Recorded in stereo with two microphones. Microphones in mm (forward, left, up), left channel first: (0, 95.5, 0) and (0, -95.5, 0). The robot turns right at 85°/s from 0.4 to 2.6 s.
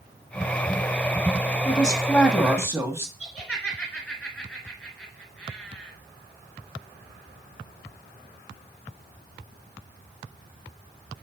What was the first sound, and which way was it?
A woman speaking, 125° left.